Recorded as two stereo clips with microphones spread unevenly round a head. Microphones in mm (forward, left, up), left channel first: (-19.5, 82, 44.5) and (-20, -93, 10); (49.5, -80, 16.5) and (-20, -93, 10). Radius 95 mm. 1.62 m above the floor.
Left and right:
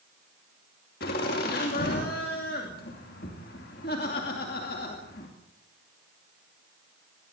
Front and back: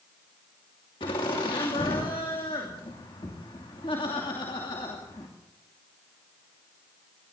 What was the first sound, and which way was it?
Laughter, 50° left.